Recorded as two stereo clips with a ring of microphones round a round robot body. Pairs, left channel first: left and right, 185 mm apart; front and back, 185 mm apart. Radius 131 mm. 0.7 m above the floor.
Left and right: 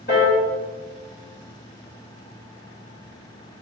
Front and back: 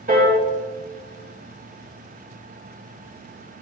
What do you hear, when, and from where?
0.1 s a piano: 140° left, 2 m